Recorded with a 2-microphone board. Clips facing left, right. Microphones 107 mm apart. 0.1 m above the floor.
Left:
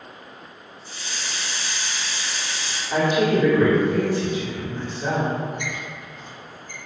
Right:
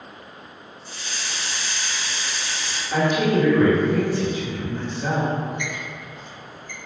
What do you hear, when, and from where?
0.8 s a hiss: 45° right (ahead or behind), 1.2 m
2.9 s a woman speaking: 10° left (ahead or behind), 1.8 m
5.6 s a squeak: 40° left (ahead or behind), 1.3 m